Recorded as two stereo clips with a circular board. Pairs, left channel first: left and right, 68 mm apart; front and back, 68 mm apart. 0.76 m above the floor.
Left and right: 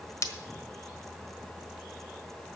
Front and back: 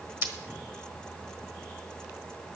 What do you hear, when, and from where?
0.2 s breaking glass: 130° left, 1.4 m